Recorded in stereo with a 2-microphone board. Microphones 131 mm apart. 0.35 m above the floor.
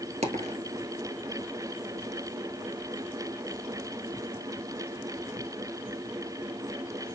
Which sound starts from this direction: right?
A dropped coin, at 0.2 s.